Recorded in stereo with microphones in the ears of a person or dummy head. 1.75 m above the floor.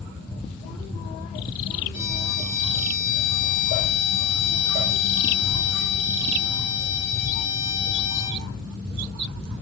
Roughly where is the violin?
Left.